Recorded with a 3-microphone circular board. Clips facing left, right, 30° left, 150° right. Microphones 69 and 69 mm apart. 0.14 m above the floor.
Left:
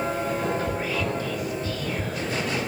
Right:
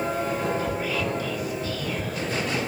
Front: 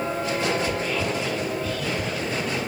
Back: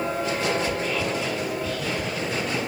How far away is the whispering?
About 1.6 m.